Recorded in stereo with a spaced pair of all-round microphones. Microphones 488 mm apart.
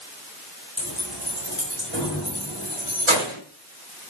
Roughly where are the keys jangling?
Right.